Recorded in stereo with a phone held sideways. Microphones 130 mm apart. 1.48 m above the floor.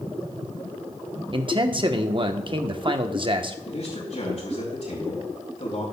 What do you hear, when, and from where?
1.3 s a man speaking: 40° right (ahead or behind), 0.9 m
3.6 s a man speaking: 65° left (ahead or behind), 4.5 m